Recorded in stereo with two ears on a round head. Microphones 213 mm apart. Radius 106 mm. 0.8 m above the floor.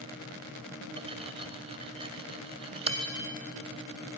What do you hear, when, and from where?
1.0 s cutlery clinking: 25° right (ahead or behind), 2.5 m